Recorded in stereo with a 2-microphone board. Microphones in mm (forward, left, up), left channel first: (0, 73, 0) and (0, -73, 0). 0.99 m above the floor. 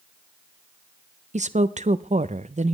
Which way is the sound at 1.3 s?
55° right (ahead or behind).